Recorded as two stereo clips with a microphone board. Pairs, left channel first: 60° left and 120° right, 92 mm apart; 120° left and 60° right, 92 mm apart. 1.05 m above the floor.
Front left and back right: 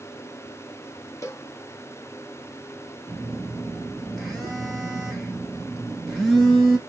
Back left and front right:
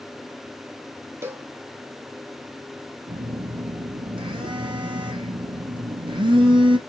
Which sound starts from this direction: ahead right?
A phone buzzing, at 3.1 s.